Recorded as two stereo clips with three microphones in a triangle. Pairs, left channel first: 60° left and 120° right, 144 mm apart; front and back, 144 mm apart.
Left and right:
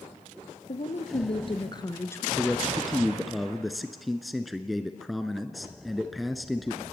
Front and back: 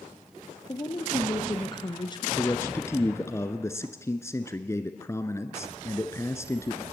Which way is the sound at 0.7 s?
55° left.